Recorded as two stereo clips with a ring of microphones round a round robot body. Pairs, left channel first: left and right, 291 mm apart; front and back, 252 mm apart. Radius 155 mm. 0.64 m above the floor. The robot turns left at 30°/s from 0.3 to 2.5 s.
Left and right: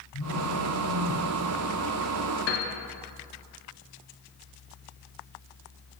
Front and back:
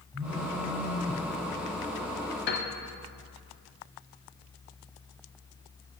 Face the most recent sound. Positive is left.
turn(degrees=40)